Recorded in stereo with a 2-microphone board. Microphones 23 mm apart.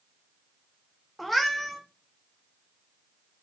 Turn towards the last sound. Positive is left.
turn(degrees=-5)  # may be behind; listen again after turning